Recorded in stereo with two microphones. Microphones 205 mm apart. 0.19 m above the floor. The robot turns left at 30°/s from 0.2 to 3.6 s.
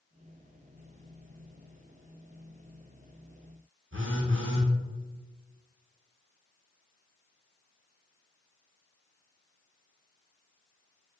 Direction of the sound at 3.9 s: 80° right.